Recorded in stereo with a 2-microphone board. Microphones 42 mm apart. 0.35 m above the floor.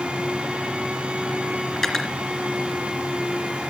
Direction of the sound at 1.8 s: 5° left (ahead or behind).